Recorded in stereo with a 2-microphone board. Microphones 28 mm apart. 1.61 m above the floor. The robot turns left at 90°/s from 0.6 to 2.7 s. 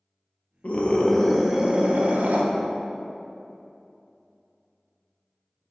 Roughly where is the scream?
Ahead left.